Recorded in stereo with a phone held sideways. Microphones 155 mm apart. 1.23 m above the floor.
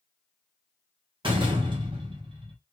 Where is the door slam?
35° right (ahead or behind), 1.0 m.